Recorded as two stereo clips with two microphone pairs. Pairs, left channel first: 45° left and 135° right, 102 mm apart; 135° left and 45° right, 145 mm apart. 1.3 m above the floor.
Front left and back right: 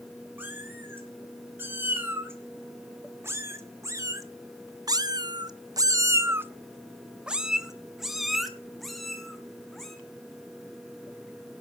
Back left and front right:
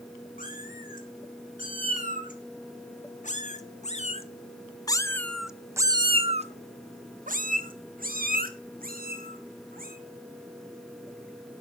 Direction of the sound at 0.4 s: 155° left.